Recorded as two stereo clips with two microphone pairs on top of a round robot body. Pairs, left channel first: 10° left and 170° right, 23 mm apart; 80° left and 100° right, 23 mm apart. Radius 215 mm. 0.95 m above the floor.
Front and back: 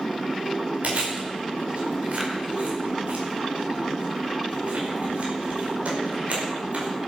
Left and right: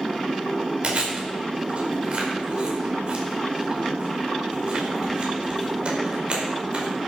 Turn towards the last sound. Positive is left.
turn(degrees=-140)